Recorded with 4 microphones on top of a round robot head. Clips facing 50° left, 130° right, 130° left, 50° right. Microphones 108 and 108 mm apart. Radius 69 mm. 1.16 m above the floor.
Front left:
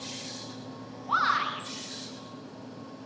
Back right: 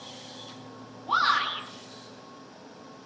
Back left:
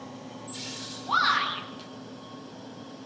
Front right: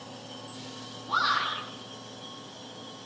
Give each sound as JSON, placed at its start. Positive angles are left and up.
{"t": 1.1, "sound": "a shout", "azimuth_deg": 160, "distance_m": 8.0}